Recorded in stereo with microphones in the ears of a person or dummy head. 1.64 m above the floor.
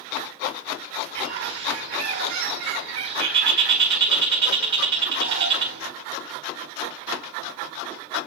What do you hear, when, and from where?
1.1 s a bird: 65° right (ahead or behind), 1.3 m